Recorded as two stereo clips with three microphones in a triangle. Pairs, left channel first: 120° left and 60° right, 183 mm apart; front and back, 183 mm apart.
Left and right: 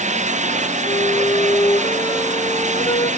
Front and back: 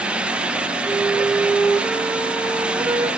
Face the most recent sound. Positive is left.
turn(degrees=115)